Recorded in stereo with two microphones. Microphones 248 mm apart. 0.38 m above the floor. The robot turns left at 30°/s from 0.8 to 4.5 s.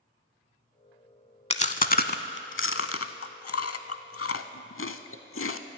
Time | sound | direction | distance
1.5 | chewing | 25° left (ahead or behind) | 0.5 m